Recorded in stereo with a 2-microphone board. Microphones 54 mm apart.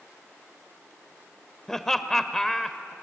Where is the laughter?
10° left (ahead or behind), 0.9 m.